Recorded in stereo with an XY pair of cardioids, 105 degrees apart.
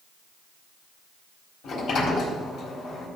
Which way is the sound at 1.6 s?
70° left.